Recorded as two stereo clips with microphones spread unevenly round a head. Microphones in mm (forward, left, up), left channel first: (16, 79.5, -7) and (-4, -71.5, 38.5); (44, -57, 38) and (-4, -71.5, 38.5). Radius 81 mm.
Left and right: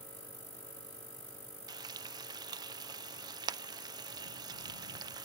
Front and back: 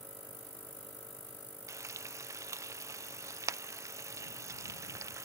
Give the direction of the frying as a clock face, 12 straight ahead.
5 o'clock.